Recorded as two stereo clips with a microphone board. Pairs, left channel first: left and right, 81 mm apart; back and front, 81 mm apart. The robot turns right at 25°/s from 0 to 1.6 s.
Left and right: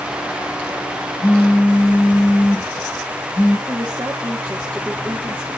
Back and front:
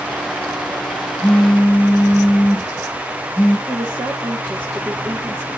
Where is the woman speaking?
25° right, 1.6 m.